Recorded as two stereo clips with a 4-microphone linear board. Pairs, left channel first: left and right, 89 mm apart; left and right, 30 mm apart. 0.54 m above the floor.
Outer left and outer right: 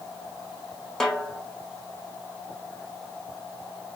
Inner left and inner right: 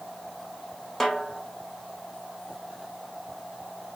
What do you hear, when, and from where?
1.0 s a snare drum: 5° left (ahead or behind), 0.9 m